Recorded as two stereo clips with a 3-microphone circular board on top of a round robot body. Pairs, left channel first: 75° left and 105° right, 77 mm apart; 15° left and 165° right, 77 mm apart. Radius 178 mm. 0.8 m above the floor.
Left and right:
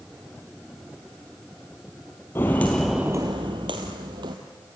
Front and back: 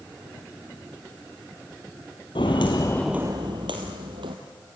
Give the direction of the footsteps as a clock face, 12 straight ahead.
11 o'clock.